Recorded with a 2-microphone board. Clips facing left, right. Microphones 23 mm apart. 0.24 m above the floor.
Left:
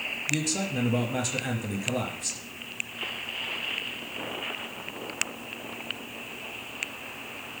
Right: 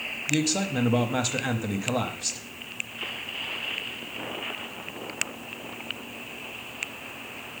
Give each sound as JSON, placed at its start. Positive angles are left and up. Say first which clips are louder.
{"t": 0.3, "sound": "a man speaking", "louder": "right 5 dB", "side_deg": -25, "distance_m": 1.0}